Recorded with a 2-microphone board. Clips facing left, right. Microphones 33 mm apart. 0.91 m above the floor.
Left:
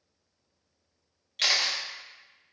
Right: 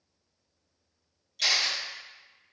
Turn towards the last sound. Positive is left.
turn(degrees=50)  # may be behind; listen again after turning